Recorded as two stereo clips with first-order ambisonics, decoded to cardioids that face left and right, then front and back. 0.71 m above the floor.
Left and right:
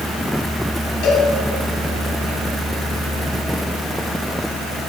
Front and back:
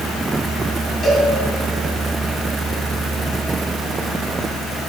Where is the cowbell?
70° left, 3 m.